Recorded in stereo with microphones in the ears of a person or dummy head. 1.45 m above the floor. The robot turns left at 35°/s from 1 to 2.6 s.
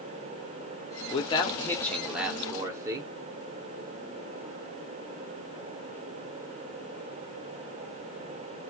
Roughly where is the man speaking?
Ahead left.